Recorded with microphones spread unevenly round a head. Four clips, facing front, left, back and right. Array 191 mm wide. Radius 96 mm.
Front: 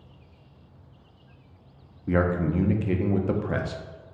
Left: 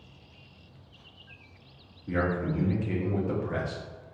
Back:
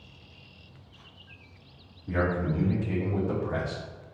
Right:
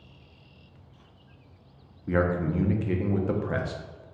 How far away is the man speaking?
About 0.7 m.